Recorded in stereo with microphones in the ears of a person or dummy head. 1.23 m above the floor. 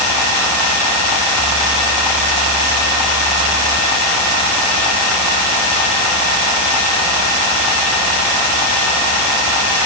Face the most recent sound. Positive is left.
No sound to turn to.